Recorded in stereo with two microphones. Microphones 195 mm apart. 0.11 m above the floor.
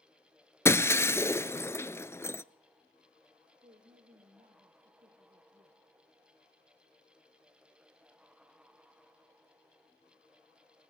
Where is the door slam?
I don't hear a door slam.